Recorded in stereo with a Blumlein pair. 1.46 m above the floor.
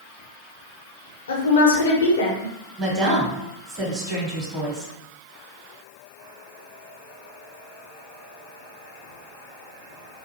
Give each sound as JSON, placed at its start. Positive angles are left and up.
{"t": 1.3, "sound": "a woman speaking", "azimuth_deg": 65, "distance_m": 0.9}
{"t": 2.8, "sound": "a woman speaking", "azimuth_deg": -30, "distance_m": 1.2}